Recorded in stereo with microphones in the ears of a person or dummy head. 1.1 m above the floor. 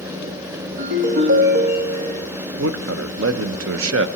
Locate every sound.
0.8 s a ringtone: 55° right (ahead or behind), 1.0 m
2.6 s a man speaking: 65° right (ahead or behind), 0.6 m